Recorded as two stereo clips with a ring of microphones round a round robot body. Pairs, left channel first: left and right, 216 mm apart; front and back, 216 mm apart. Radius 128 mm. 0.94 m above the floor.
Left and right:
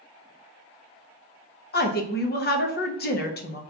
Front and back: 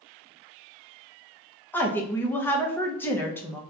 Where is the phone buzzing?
No phone buzzing in this recording.